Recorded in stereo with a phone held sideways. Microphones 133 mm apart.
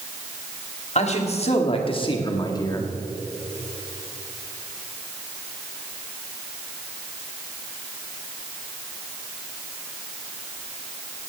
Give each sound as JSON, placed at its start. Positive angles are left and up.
{"t": 0.9, "sound": "a man speaking", "side_deg": 60, "distance_m": 2.0}